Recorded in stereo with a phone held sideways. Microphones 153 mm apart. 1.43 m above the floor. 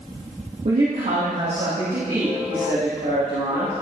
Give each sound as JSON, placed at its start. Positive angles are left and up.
{"t": 0.7, "sound": "a woman speaking", "side_deg": -70, "distance_m": 2.5}